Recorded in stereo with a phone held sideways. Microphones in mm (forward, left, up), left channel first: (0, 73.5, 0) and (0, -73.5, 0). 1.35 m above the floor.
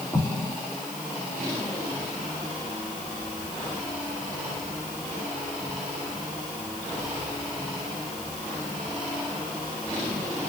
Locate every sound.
0.1 s an explosion: 10° left (ahead or behind), 2 m